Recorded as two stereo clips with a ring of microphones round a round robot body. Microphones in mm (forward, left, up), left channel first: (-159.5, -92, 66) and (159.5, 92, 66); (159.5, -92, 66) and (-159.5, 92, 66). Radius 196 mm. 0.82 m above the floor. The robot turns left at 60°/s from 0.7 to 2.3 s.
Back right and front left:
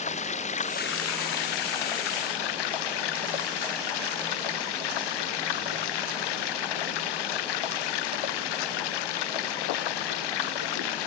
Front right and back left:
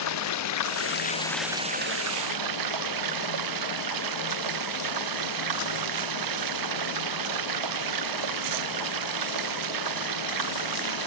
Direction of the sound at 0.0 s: 80° right.